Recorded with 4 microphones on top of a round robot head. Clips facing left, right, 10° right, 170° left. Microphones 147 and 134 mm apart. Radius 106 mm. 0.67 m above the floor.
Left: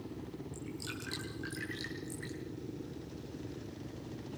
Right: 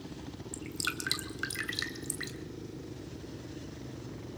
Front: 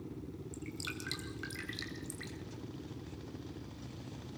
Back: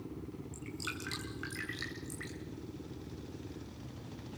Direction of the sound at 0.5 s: 80° right.